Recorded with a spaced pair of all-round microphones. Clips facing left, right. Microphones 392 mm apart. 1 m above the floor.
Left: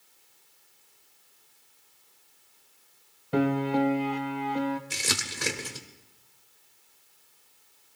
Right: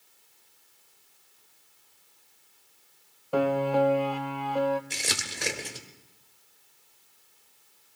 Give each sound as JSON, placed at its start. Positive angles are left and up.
{"t": 3.3, "sound": "a piano", "side_deg": 35, "distance_m": 0.7}
{"t": 4.9, "sound": "crumpling", "side_deg": 20, "distance_m": 1.6}